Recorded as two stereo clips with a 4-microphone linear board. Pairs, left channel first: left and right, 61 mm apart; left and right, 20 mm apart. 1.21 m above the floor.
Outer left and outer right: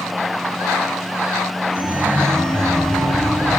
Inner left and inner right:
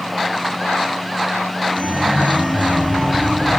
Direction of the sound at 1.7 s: 65° right (ahead or behind).